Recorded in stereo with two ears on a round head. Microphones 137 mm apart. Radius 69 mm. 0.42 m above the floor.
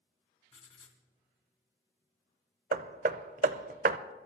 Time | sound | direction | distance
0.5 | writing | 40° left (ahead or behind) | 2.5 m
2.7 | hammering | 60° right (ahead or behind) | 0.6 m